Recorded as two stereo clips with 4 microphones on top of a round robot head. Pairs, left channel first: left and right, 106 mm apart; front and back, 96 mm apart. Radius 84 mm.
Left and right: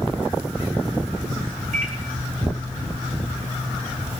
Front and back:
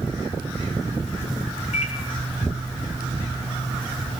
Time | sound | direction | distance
1.7 | a microwave | 50° right | 1.6 m